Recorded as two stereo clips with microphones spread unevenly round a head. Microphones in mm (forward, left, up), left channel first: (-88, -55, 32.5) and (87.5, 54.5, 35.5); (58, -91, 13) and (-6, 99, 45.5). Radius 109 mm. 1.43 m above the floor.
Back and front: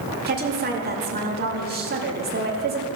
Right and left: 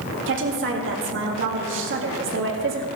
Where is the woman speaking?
80° left, 2.5 m.